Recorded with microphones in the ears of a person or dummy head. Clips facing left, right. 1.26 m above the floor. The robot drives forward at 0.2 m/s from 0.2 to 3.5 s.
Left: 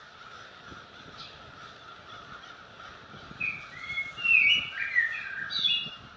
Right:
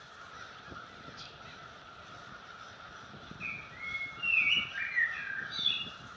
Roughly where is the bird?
Left.